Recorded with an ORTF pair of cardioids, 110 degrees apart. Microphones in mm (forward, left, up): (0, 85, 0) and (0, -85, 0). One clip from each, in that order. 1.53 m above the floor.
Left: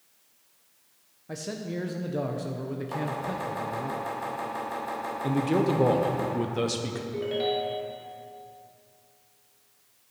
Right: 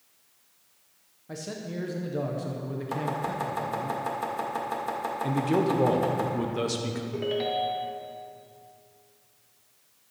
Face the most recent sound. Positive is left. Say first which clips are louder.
# even
turn(degrees=-20)